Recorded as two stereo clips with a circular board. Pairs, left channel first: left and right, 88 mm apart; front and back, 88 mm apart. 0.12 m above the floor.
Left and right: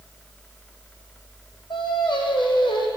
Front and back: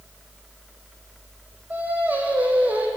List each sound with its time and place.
1.7 s singing: 110° left, 1.3 m